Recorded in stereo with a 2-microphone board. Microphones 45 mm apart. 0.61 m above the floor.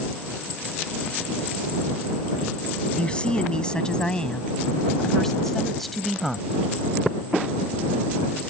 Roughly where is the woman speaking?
Left.